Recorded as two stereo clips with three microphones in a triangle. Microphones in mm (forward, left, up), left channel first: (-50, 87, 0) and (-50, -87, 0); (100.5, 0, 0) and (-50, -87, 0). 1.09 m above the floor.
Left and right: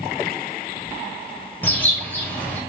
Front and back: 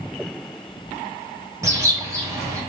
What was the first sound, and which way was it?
A bird, 160° left.